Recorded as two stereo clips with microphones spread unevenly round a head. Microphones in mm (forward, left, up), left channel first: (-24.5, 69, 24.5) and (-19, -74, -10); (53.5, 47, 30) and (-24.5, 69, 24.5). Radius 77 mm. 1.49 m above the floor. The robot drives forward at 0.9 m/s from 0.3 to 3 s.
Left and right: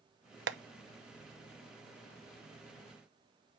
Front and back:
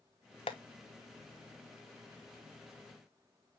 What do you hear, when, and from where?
0.5 s tapping: 65° right, 0.7 m; by 0.6 s 75° right, 0.7 m